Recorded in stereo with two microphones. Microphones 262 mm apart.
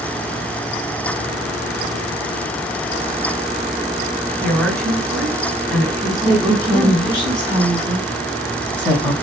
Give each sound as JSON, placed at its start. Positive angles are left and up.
{"t": 4.4, "sound": "a woman speaking", "side_deg": 5, "distance_m": 2.5}
{"t": 6.2, "sound": "a woman speaking", "side_deg": 20, "distance_m": 1.4}